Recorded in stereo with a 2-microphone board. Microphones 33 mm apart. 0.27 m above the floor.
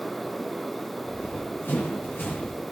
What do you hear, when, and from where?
1.0 s running footsteps: 90° left, 5.5 m; by 2.6 s 70° left (ahead or behind), 4.5 m